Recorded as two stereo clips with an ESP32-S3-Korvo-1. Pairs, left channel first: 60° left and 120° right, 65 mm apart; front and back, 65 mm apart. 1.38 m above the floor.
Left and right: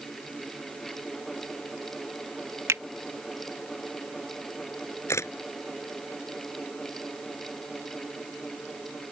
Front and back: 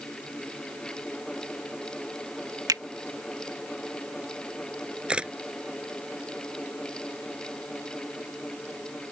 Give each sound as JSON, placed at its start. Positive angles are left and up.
{"t": 2.7, "sound": "a finger snap", "azimuth_deg": -165}
{"t": 5.1, "sound": "a camera shutter", "azimuth_deg": 105}